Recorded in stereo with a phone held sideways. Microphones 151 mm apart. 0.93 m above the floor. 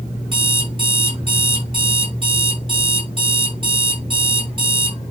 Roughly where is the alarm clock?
Right.